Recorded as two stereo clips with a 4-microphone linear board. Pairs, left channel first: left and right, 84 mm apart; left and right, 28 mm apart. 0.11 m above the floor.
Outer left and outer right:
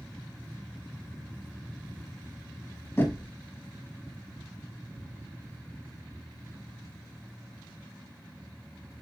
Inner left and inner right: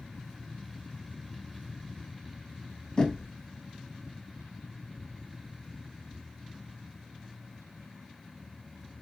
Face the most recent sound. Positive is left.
turn(degrees=30)  # may be behind; listen again after turning